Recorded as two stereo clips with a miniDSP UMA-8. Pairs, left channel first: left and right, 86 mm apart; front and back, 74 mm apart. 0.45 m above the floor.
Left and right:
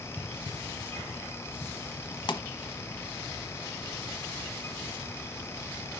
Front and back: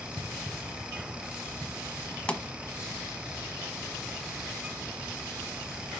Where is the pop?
75° left, 1.0 m.